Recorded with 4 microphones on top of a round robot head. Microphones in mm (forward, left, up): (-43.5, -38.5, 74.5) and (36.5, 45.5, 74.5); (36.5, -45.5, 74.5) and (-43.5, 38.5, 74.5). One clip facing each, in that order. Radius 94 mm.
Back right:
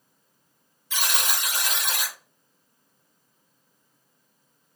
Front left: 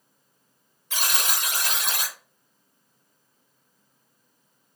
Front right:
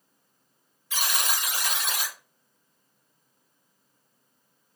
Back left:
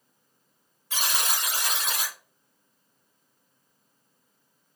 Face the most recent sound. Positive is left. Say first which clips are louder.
# even, even
turn(degrees=80)